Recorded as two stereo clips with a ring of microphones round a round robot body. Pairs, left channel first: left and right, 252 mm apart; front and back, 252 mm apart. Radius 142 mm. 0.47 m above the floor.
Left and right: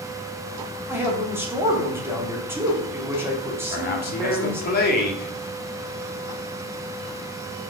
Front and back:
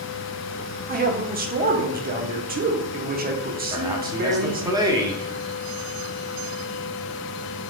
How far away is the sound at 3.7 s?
About 1.2 m.